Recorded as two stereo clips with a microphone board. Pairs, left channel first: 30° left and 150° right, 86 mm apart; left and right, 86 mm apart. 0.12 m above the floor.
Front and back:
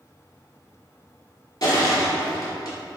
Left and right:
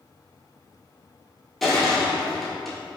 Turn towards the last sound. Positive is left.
turn(degrees=0)